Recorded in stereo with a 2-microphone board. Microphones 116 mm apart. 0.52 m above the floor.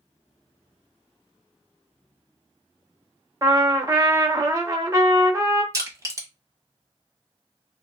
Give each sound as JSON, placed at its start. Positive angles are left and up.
{"t": 3.4, "sound": "a trumpet", "side_deg": -30, "distance_m": 0.6}
{"t": 5.7, "sound": "crushing", "side_deg": -30, "distance_m": 1.1}